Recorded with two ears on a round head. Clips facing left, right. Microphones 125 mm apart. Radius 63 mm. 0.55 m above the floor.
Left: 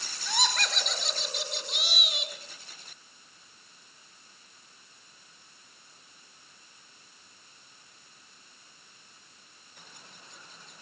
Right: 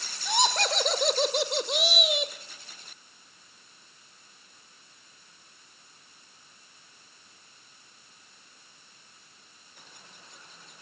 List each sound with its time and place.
0.2 s laughter: 20° right (ahead or behind), 1.5 m; by 2.3 s 70° right (ahead or behind), 2.0 m